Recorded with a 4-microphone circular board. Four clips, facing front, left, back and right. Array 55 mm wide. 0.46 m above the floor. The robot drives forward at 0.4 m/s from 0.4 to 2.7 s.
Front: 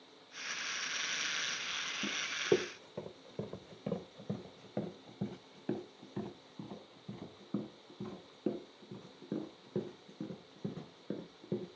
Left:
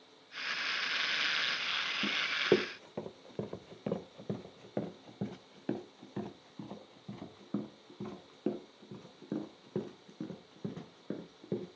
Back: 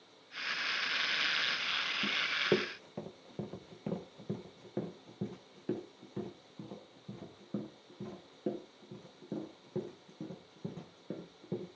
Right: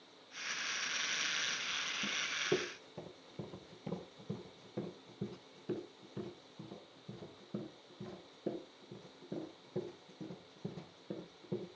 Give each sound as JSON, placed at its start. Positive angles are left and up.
{"t": 2.0, "sound": "running footsteps", "azimuth_deg": 95, "distance_m": 1.2}